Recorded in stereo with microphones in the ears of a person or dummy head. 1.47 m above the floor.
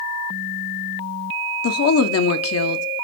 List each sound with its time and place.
1.6 s a woman speaking: 75° left (ahead or behind), 0.7 m